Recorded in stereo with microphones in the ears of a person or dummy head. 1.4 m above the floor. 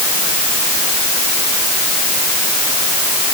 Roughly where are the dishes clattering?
No dishes clattering in this recording.